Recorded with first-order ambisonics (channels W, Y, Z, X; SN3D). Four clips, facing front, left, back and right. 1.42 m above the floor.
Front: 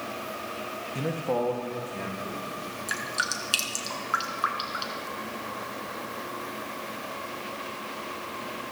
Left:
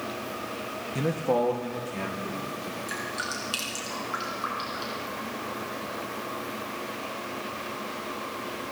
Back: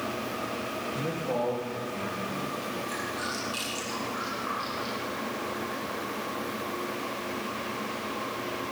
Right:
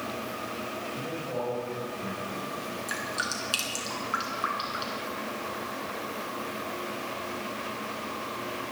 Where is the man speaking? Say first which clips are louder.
Left 11 dB, front 3 dB; 75° left, 1.3 m; by 2.8 s 70° left, 3 m.